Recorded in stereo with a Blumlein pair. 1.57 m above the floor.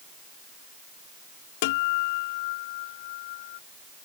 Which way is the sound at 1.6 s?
50° left.